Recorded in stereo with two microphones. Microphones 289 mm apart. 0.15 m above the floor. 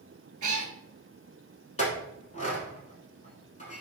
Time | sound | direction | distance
0.4 | a cat meowing | 75° right (ahead or behind) | 0.5 m
1.8 | a clink | 25° left (ahead or behind) | 1.0 m